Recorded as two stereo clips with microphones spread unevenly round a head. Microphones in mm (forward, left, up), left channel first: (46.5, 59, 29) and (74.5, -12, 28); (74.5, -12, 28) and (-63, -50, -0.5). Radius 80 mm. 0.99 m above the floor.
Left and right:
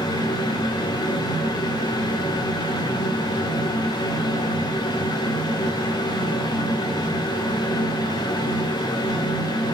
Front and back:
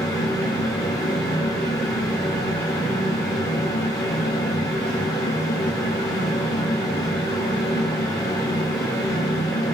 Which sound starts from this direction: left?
A fan, at 0.0 s.